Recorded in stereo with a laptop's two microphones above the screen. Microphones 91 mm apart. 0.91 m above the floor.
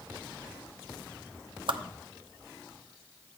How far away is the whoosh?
About 0.5 m.